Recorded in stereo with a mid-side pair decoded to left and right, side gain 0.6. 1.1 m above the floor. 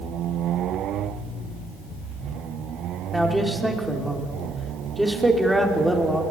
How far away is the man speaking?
About 3.5 m.